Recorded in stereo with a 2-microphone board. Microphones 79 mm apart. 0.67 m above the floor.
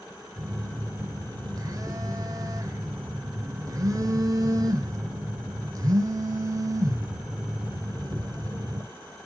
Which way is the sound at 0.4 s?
50° right (ahead or behind).